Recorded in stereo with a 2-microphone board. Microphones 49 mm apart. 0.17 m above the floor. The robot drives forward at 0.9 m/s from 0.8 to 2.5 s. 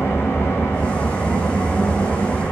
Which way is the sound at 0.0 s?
55° left (ahead or behind).